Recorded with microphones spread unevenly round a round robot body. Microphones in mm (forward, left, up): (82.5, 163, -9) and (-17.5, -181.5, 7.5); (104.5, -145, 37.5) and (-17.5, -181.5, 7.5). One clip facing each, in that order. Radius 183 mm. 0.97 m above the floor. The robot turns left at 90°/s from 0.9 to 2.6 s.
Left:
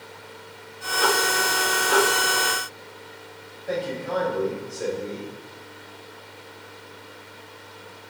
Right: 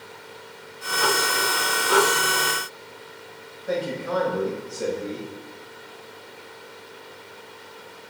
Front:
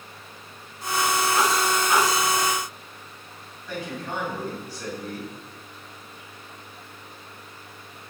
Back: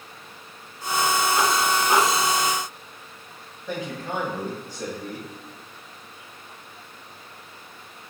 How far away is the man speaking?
About 5.5 m.